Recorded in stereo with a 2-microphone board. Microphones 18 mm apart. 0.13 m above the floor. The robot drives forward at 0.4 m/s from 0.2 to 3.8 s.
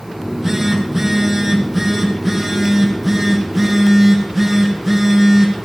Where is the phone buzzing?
25° right (ahead or behind), 3 m; by 5.7 s 15° right (ahead or behind), 4 m.